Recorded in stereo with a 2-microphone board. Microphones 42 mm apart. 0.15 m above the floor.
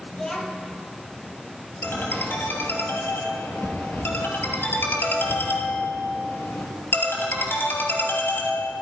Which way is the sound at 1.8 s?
65° left (ahead or behind).